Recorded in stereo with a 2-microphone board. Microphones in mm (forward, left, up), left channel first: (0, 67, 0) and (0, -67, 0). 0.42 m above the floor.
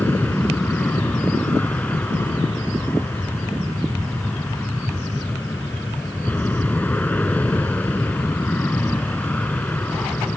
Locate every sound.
0.0 s an aircraft: 10° left (ahead or behind)